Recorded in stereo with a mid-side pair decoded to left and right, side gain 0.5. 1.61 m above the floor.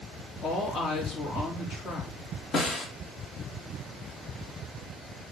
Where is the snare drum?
50° left, 1.9 m.